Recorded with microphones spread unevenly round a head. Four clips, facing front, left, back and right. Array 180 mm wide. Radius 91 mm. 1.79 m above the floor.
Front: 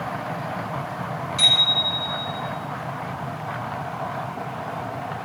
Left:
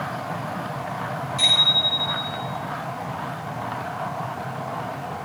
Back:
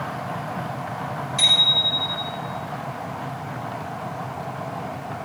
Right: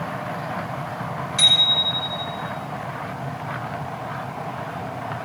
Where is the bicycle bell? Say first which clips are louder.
Even, even; 135° right, 6.5 m.